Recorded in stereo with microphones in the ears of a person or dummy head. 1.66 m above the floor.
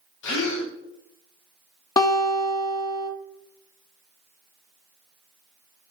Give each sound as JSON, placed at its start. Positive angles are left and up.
{"t": 0.2, "sound": "a gasp", "side_deg": 80, "distance_m": 1.2}
{"t": 2.0, "sound": "a guitar", "side_deg": 25, "distance_m": 0.6}